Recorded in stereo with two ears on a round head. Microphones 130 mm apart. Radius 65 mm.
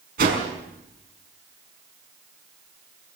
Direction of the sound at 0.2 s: 70° right (ahead or behind).